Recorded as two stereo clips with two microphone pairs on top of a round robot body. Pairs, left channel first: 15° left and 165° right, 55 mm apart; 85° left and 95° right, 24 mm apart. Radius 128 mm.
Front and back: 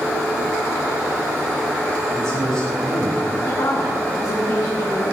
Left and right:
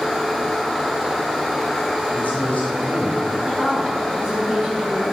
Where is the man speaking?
95° left, 4.5 m.